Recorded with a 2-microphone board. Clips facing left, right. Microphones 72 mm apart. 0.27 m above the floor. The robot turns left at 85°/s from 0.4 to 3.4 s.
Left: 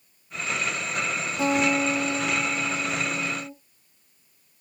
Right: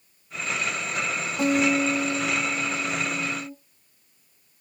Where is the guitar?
155° right, 2 m; by 3.5 s 35° left, 2 m.